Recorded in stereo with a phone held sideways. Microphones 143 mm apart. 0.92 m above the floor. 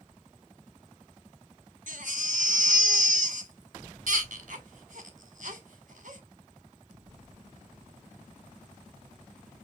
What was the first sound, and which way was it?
A baby crying, 60° right (ahead or behind).